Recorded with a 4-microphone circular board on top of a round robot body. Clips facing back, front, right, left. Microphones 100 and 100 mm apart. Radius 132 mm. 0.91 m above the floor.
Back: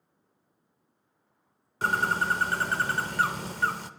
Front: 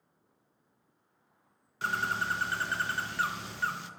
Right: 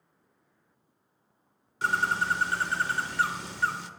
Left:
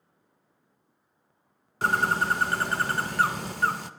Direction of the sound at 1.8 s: 130° left.